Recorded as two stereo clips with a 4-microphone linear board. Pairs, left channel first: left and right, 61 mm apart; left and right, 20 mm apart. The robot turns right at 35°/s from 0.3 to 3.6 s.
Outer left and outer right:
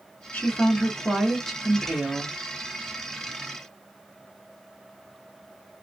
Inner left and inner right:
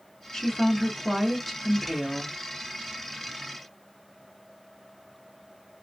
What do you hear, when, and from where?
0.3 s a woman speaking: 135° left, 1.6 m; by 2.3 s 155° right, 1.6 m